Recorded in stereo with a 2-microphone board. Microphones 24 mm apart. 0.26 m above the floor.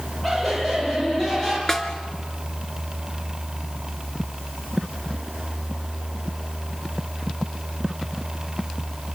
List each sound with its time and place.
0.2 s laughter: 10° left (ahead or behind), 7.5 m; by 1.6 s 20° left (ahead or behind), 7.5 m
1.7 s a snare drum: 20° left (ahead or behind), 1.9 m